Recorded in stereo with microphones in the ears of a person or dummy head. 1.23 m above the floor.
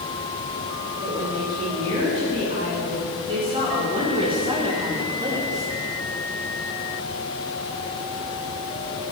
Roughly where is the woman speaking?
Right.